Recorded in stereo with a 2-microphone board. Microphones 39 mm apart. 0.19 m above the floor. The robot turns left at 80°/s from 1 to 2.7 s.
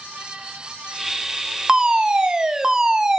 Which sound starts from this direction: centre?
A fire alarm, at 1.7 s.